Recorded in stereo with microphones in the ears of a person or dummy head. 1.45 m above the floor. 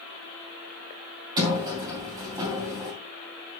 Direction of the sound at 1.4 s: 20° right (ahead or behind).